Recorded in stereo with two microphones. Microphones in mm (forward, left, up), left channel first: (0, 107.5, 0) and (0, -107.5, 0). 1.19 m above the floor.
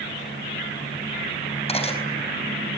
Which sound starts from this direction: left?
Cutlery clinking, at 1.7 s.